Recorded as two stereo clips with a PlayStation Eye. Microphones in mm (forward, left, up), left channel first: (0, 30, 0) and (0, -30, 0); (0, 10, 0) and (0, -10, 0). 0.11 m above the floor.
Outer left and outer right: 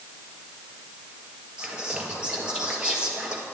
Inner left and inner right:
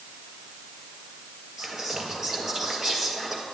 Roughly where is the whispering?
Centre.